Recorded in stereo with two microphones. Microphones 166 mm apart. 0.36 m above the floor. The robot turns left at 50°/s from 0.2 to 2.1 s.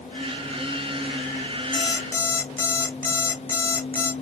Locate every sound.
1.7 s an alarm clock: 30° left (ahead or behind), 1.7 m; by 4.1 s 15° left (ahead or behind), 1.7 m